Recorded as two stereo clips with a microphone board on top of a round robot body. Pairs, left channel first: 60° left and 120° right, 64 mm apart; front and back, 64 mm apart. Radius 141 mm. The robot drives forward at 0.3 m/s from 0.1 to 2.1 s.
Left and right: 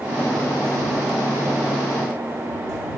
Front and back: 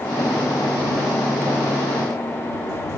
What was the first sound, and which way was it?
Only background noise.